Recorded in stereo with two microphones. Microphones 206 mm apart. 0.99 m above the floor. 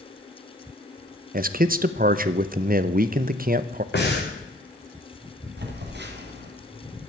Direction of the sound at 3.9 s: 55° left (ahead or behind).